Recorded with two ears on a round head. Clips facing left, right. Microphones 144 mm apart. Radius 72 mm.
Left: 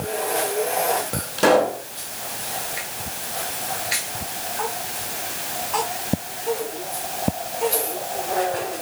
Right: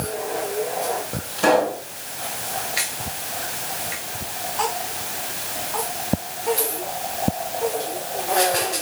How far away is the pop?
About 4.5 m.